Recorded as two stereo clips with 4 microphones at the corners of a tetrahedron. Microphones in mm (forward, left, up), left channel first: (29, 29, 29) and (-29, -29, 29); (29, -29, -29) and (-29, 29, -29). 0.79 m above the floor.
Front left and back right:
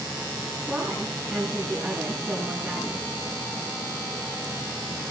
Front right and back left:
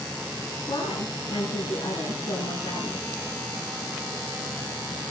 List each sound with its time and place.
0.7 s a woman speaking: 50° right, 8 m